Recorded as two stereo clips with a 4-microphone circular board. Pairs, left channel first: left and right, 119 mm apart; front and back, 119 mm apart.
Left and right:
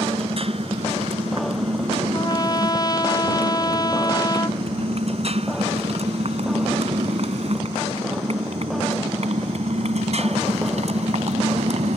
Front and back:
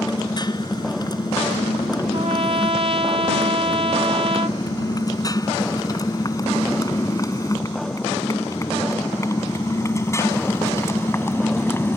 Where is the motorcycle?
55° right; by 12.0 s 70° right.